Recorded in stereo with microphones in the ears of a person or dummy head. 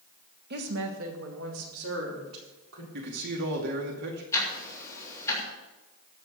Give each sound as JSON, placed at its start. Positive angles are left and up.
{"t": 0.5, "sound": "a woman speaking", "side_deg": -60, "distance_m": 1.5}
{"t": 2.9, "sound": "a man speaking", "side_deg": -65, "distance_m": 2.0}
{"t": 4.3, "sound": "ticking", "side_deg": 20, "distance_m": 3.0}